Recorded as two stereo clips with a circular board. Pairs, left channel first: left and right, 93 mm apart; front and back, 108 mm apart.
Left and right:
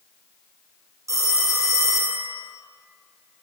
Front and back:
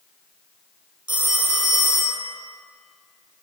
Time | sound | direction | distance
1.1 | a phone ringing | 140° right | 2 m